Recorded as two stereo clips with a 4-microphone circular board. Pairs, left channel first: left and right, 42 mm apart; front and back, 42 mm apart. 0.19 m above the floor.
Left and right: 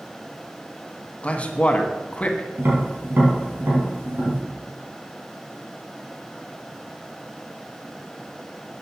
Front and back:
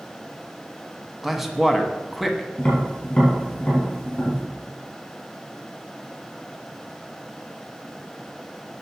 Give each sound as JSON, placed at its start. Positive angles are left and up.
{"t": 1.2, "sound": "a man speaking", "azimuth_deg": 95, "distance_m": 1.1}
{"t": 2.6, "sound": "tapping", "azimuth_deg": -65, "distance_m": 4.5}